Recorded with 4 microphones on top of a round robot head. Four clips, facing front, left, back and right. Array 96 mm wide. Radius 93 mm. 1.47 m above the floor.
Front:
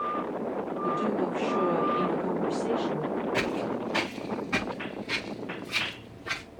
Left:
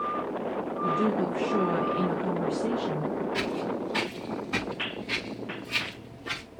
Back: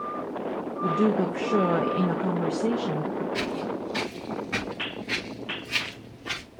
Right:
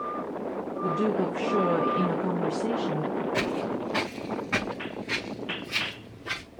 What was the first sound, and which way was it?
A woman speaking, 155° right.